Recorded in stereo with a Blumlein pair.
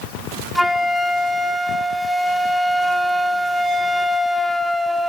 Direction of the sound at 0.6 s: Straight ahead.